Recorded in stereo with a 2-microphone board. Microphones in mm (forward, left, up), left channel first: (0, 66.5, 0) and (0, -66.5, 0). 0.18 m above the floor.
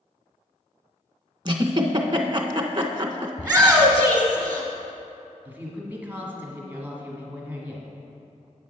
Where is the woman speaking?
15° right (ahead or behind), 1.3 m.